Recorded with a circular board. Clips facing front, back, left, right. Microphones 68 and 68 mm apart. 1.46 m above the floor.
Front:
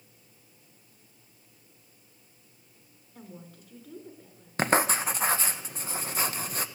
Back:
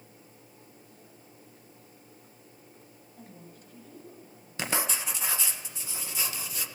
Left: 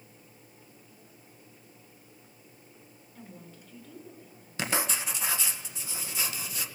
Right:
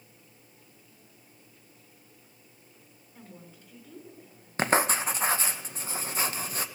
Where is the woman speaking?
10° right, 6.5 m.